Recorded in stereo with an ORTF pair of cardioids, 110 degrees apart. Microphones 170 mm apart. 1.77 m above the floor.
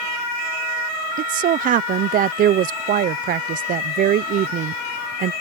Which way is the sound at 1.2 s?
55° right.